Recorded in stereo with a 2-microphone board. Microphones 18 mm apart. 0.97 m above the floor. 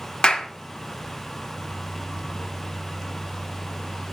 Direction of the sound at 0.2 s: 60° left (ahead or behind).